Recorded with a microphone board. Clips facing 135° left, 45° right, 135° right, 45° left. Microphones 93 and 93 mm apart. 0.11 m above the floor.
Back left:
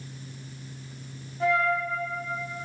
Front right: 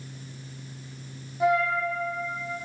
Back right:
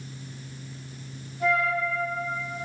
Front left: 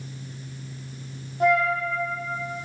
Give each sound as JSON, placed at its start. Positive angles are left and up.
{"t": 1.4, "sound": "a flute", "azimuth_deg": 30, "distance_m": 3.5}